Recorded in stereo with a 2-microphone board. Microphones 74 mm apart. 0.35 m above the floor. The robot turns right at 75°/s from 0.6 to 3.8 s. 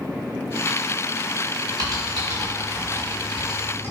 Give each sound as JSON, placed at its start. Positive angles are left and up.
{"t": 1.8, "sound": "typing on a keyboard", "side_deg": -55, "distance_m": 3.0}